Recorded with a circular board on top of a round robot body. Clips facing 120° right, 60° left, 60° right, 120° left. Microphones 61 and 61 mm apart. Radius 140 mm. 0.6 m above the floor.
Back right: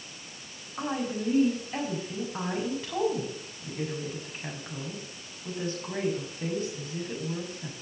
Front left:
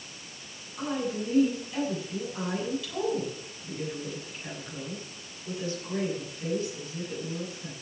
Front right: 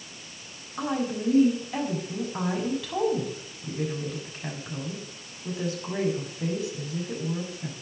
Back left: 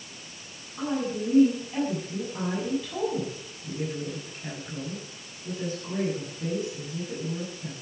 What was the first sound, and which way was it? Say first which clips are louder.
A woman speaking: even, even; 65° right.